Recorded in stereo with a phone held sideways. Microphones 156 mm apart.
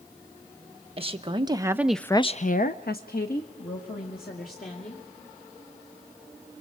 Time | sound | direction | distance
1.0 | a woman speaking | 40° right (ahead or behind) | 1.3 m